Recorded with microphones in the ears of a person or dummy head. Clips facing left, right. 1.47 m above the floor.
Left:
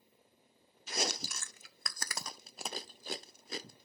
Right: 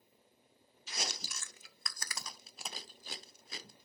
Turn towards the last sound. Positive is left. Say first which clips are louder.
# left 7 dB
turn(degrees=45)  # may be behind; listen again after turning